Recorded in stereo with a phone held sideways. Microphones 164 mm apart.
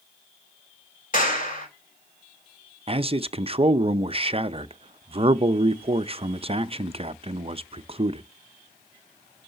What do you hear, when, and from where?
1.1 s a clap: 55° left (ahead or behind), 3.5 m
2.9 s a man speaking: 35° right (ahead or behind), 0.6 m